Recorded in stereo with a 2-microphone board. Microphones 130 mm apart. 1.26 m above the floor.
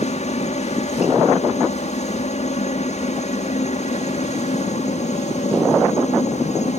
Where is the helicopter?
55° left (ahead or behind); by 6.8 s 60° left (ahead or behind).